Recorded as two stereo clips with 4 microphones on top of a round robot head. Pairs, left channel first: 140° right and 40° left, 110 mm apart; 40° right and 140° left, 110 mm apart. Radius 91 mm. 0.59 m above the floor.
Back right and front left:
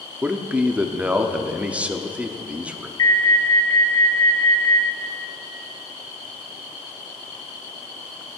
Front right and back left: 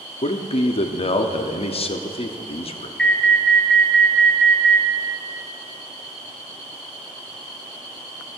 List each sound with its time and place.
0.2 s a man speaking: 35° right, 1.0 m
3.0 s an alarm: 120° right, 1.8 m